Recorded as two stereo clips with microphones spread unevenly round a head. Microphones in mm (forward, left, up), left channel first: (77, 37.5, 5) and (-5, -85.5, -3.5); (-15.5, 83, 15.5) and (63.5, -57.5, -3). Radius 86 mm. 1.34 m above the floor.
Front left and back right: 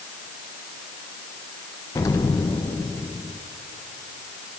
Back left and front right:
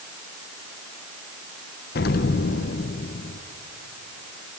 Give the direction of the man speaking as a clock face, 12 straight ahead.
I don't hear a man speaking.